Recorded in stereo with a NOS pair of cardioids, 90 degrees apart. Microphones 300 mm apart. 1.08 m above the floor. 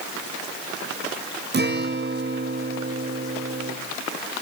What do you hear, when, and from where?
1.5 s a guitar: 35° right, 0.8 m